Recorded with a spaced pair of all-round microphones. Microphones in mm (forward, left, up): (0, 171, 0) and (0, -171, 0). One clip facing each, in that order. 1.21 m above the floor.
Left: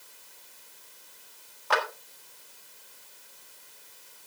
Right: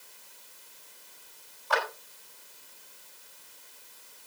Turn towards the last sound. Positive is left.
turn(degrees=75)  # may be behind; listen again after turning